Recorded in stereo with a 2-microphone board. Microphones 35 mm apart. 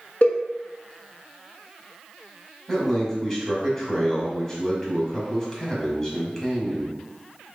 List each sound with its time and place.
0.2 s a cowbell: 45° left (ahead or behind), 0.9 m
2.7 s a man speaking: 15° left (ahead or behind), 1.7 m